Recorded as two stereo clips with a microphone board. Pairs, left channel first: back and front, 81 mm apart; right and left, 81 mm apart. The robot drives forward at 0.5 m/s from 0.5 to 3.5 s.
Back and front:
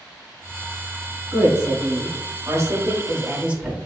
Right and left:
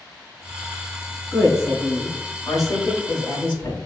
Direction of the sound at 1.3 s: 30° right.